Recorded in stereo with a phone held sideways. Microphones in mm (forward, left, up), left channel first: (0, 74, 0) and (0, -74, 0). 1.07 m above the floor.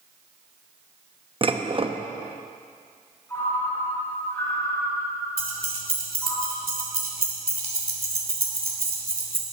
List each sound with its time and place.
1.4 s dishes clattering: 35° right (ahead or behind), 0.8 m
3.3 s a ringtone: 15° left (ahead or behind), 4.5 m
5.4 s keys jangling: 80° right, 2.5 m